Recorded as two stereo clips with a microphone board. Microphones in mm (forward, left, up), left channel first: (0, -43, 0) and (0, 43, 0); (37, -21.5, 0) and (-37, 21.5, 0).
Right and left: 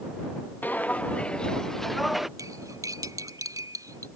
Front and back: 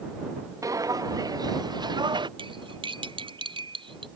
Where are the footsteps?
160° right; by 2.3 s 175° left.